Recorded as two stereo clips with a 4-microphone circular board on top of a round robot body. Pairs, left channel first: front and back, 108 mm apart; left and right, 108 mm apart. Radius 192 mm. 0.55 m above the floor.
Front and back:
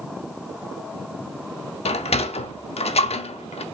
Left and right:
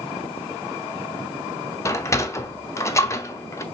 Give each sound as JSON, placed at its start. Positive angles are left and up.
{"t": 1.9, "sound": "a sliding door", "azimuth_deg": 25, "distance_m": 0.5}